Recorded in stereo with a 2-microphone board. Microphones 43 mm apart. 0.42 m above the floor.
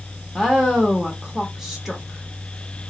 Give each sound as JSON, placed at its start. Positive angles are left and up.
{"t": 0.3, "sound": "a woman speaking", "side_deg": -5, "distance_m": 1.0}